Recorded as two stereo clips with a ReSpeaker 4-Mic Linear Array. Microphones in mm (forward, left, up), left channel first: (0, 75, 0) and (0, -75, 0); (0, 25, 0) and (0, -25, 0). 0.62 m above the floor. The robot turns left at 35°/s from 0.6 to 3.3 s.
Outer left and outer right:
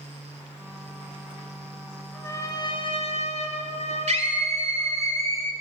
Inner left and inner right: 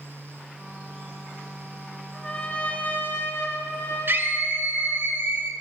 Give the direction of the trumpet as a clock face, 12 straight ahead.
7 o'clock.